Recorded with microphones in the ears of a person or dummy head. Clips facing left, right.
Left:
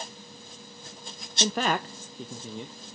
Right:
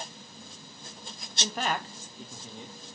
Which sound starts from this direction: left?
A man speaking, at 1.4 s.